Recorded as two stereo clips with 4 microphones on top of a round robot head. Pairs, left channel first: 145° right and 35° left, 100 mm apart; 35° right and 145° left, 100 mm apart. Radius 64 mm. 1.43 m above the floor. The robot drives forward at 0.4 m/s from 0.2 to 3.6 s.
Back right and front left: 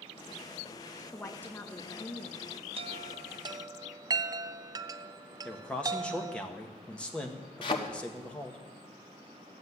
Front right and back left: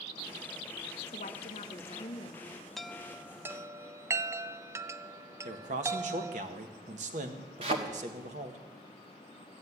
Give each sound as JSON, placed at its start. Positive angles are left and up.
{"t": 1.1, "sound": "a woman speaking", "azimuth_deg": -65, "distance_m": 1.1}
{"t": 2.8, "sound": "a chime", "azimuth_deg": 50, "distance_m": 0.7}
{"t": 5.5, "sound": "a man speaking", "azimuth_deg": 135, "distance_m": 1.5}
{"t": 7.6, "sound": "a thud", "azimuth_deg": 175, "distance_m": 1.2}